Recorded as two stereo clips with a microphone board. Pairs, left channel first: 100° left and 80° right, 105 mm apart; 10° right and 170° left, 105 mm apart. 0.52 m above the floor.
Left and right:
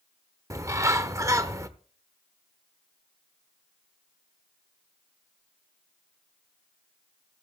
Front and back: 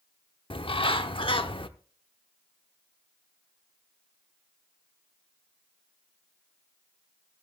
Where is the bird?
25° right, 0.9 m.